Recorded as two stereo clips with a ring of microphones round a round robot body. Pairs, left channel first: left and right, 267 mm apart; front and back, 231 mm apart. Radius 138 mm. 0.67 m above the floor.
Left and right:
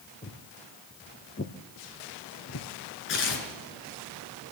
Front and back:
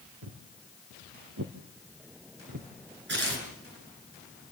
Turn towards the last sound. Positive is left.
turn(degrees=140)